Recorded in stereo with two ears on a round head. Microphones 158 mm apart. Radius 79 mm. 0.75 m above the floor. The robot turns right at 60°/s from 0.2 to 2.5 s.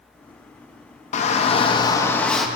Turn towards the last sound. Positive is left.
turn(degrees=-175)